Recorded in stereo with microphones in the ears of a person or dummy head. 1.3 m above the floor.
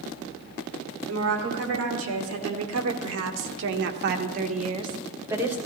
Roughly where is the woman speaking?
Right.